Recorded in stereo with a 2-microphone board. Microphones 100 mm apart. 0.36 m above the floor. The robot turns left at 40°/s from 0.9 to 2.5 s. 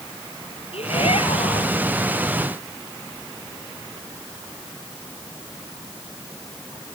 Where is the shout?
100° left; by 1.7 s 65° left.